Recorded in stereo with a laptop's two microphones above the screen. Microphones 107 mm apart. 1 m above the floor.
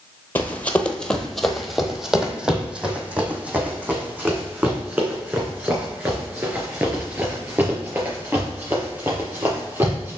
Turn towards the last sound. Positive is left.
turn(degrees=-20)  # may be behind; listen again after turning